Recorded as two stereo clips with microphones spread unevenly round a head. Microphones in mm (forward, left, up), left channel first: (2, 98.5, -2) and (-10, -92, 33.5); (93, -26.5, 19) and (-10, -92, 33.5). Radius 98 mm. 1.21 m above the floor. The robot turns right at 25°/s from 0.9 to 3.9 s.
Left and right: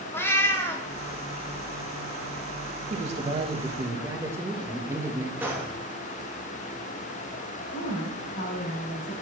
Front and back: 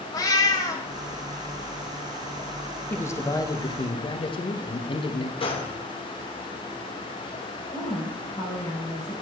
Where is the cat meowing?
Straight ahead, 0.7 m.